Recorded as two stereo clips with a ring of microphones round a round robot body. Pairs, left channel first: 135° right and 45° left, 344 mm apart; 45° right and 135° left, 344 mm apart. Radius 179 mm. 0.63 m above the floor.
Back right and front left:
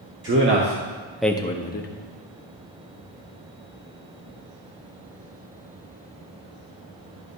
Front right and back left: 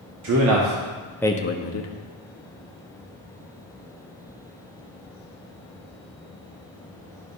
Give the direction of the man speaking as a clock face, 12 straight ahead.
9 o'clock.